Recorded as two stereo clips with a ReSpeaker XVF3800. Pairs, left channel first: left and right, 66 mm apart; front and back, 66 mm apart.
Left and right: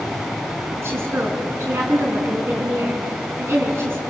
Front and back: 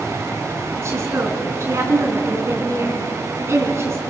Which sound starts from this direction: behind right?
A woman speaking, at 0.8 s.